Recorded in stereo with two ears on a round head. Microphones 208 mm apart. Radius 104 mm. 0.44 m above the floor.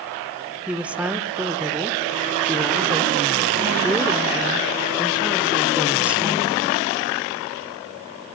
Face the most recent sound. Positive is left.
turn(degrees=-5)  # may be behind; listen again after turning